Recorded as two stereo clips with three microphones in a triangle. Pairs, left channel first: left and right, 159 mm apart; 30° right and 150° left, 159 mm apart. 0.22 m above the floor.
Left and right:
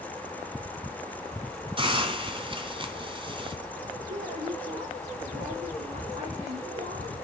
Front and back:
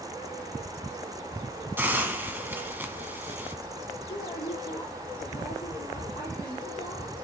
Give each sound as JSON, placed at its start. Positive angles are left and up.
{"t": 1.8, "sound": "a hiss", "azimuth_deg": -135, "distance_m": 1.3}
{"t": 4.1, "sound": "a woman speaking", "azimuth_deg": -65, "distance_m": 5.5}